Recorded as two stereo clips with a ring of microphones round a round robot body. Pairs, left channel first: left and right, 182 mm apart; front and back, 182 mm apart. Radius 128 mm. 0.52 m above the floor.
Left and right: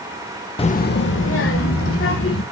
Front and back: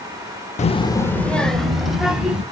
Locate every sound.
0.6 s a child speaking: 40° left, 0.6 m; by 2.4 s 95° left, 3 m